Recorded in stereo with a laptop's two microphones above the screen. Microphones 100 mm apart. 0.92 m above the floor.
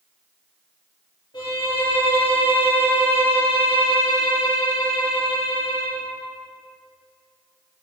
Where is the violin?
50° left (ahead or behind), 4.5 m.